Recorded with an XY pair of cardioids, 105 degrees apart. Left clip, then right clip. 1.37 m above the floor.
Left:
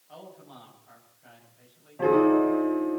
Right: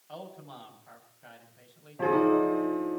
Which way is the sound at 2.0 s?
5° right.